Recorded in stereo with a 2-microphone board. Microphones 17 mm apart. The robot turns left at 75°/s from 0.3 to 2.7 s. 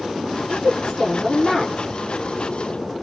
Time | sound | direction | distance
0.4 | a woman speaking | 95° right | 2 m